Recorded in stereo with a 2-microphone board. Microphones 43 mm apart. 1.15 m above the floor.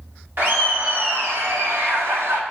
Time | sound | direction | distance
0.4 | laughter | 55° right (ahead or behind) | 1.9 m